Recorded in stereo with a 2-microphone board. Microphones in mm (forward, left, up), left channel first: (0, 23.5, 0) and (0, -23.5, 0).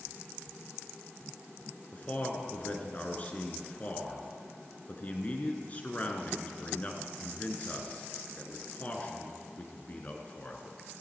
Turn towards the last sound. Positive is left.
turn(degrees=30)  # may be behind; listen again after turning